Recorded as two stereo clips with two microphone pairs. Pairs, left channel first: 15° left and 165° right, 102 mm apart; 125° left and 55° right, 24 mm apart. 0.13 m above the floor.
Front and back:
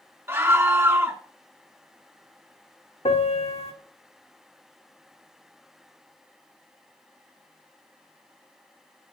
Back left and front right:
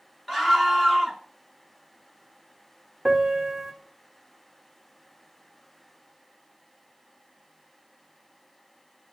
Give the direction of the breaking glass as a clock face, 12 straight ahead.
I don't hear breaking glass.